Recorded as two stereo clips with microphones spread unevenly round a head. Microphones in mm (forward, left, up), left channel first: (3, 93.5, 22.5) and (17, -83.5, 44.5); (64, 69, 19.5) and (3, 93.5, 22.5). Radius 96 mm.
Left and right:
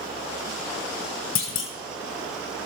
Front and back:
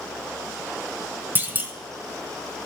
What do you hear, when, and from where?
1.4 s a clunk: 105° left, 1.5 m